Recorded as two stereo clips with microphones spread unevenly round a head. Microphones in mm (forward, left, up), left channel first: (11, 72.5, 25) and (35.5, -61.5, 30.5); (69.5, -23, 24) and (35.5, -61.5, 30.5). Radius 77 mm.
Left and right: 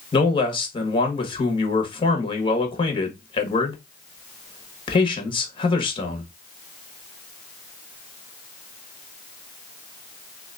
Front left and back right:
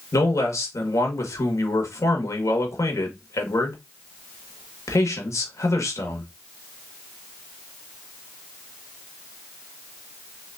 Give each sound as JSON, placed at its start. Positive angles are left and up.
{"t": 0.1, "sound": "a man speaking", "azimuth_deg": 50, "distance_m": 1.7}